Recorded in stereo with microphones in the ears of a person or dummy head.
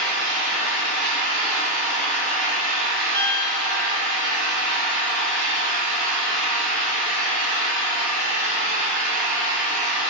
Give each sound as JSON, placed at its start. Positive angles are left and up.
{"t": 0.0, "sound": "an engine running", "side_deg": -50, "distance_m": 1.1}
{"t": 3.1, "sound": "a piano", "side_deg": -60, "distance_m": 2.0}